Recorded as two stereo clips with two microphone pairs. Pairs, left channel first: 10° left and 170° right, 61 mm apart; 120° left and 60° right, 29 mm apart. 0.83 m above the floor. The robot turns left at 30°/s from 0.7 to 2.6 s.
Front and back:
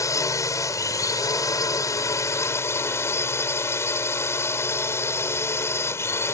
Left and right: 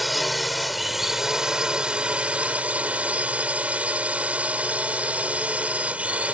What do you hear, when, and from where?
0.0 s a drone: 25° left; by 6.3 s 30° right